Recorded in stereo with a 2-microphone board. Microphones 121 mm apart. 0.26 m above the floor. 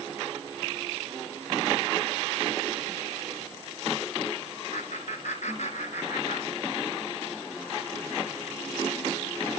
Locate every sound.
4.7 s laughter: 70° left (ahead or behind), 3.5 m; by 7.0 s 65° left (ahead or behind), 4 m